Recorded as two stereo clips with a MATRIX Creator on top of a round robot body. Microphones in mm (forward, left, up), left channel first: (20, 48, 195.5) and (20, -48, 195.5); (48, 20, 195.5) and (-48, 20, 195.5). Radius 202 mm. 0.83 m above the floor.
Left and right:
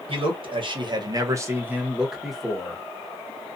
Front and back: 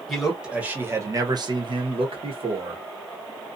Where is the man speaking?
90° right, 1.1 m; by 2.8 s 170° left, 1.4 m.